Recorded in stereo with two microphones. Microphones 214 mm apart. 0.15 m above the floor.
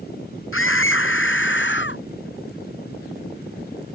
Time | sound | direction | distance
0.5 | a scream | 65° left (ahead or behind) | ?